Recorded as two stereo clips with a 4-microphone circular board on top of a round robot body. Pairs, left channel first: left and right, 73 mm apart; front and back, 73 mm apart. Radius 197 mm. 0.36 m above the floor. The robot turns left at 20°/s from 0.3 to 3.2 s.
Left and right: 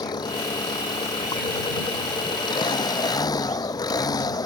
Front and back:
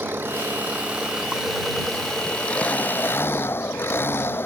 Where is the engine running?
120° left; by 4.5 s 60° left.